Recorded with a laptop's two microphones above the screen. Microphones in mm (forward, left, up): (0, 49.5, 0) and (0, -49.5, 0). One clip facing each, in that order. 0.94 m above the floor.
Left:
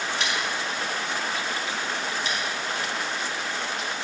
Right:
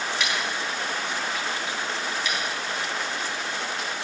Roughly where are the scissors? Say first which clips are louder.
Even; left.